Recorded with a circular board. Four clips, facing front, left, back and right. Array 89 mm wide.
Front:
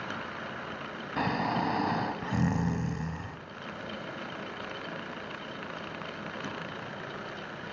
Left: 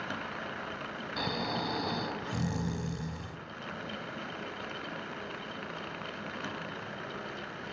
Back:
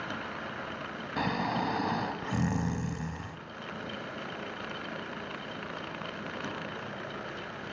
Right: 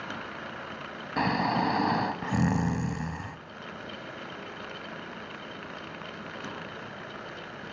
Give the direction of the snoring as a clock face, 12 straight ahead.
3 o'clock.